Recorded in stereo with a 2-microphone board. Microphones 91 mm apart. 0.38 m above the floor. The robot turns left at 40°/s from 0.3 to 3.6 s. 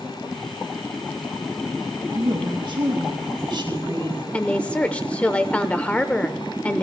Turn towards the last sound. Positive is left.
turn(degrees=15)  # may be behind; listen again after turning